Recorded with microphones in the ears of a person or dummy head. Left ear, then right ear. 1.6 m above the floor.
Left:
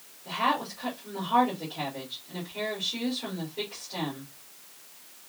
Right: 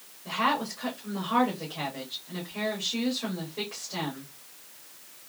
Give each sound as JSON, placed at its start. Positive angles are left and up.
{"t": 0.2, "sound": "a woman speaking", "side_deg": -20, "distance_m": 2.5}